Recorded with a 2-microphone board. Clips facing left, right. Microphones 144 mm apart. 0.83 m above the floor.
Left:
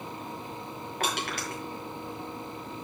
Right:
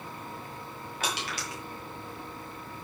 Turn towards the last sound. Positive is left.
turn(degrees=55)  # may be behind; listen again after turning